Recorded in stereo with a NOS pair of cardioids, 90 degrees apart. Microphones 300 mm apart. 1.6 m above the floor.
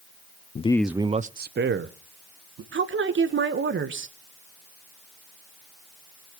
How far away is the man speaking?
About 0.5 m.